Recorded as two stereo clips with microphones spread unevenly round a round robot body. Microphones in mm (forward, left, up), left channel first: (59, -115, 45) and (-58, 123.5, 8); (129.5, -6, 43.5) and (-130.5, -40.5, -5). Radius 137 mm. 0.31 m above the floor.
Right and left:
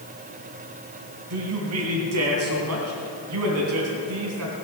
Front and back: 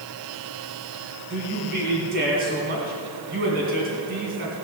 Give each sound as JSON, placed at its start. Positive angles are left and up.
{"t": 1.3, "sound": "a man speaking", "azimuth_deg": 135, "distance_m": 2.5}